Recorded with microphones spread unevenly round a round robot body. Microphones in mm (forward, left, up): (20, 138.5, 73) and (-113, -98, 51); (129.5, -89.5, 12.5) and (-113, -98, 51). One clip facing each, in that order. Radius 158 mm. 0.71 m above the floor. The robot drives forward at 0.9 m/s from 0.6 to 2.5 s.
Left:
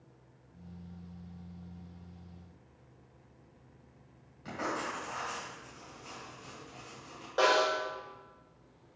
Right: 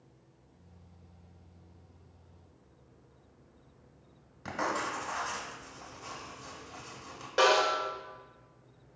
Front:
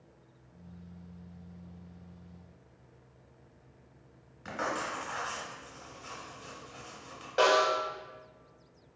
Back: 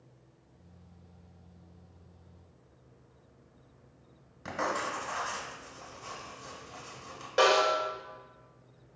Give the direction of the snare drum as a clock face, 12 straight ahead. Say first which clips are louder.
Right 2 dB, back 1 dB; 5 o'clock.